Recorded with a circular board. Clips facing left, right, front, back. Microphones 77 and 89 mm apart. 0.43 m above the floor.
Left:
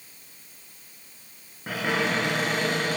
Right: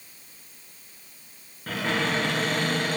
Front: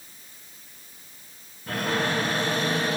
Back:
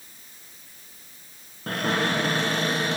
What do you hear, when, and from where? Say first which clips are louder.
1.7 s a cupboard door: left 1 dB, back 1 dB; 165° left, 3 m